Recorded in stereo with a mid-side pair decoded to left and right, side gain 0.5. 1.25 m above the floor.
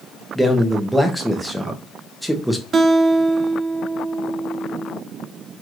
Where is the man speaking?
5° right, 1.2 m.